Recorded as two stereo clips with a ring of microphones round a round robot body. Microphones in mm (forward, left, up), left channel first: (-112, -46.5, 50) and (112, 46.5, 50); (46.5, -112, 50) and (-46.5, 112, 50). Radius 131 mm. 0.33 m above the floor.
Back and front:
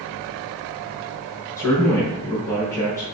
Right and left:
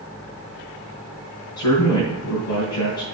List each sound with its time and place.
1.6 s a man speaking: 80° right, 4.5 m